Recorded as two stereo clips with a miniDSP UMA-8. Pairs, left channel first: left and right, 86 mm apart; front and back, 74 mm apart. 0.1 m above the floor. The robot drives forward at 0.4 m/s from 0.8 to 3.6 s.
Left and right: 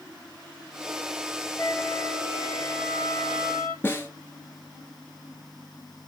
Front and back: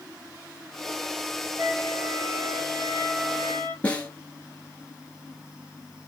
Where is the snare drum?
50° left, 1.6 m.